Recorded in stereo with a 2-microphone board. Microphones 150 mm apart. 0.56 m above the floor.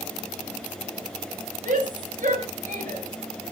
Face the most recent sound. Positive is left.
turn(degrees=-65)  # may be behind; listen again after turning